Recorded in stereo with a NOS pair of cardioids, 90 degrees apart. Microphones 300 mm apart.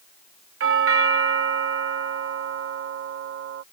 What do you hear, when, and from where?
0.6 s a doorbell: 50° right